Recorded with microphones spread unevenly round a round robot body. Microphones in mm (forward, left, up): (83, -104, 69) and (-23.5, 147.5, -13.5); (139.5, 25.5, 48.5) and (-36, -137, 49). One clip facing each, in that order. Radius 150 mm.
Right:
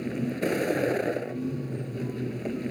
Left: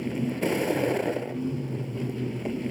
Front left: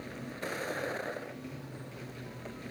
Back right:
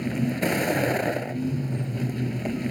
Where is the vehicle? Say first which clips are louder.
Left 1 dB, back right 16 dB; 160° right.